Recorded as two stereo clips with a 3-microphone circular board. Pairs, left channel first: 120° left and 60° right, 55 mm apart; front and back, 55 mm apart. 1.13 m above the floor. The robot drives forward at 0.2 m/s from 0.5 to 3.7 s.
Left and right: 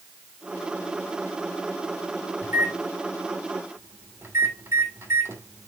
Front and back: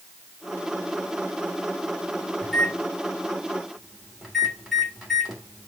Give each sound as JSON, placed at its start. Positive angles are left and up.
{"t": 2.4, "sound": "a microwave", "azimuth_deg": -85, "distance_m": 2.5}